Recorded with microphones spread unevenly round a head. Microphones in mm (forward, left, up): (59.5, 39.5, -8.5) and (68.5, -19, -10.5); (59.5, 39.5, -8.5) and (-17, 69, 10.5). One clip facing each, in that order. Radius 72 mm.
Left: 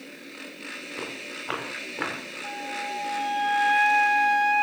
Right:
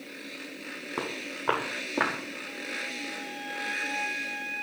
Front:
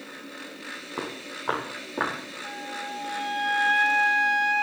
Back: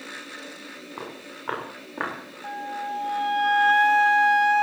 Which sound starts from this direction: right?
Footsteps, at 1.0 s.